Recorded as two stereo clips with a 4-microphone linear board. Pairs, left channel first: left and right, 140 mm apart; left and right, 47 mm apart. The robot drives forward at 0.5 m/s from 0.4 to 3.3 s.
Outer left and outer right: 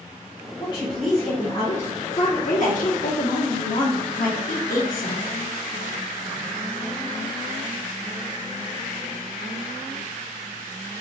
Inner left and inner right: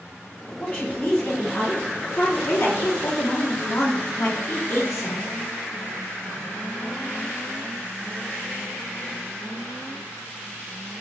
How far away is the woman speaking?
About 1.9 m.